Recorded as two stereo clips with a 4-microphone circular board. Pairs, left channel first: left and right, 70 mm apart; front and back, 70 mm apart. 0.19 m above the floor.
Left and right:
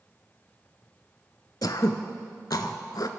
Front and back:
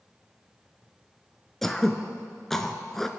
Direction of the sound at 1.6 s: 85° left.